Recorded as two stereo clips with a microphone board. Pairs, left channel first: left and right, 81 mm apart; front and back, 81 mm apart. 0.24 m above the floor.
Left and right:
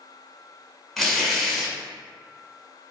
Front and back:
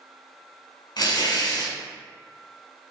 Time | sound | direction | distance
1.0 | tearing paper | straight ahead | 1.1 m